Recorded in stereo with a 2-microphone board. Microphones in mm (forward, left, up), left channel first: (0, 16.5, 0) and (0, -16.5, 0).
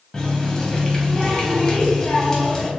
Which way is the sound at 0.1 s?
20° left (ahead or behind).